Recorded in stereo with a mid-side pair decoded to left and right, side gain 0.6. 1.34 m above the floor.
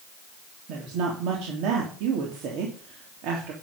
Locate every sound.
0.7 s a woman speaking: 70° right, 3 m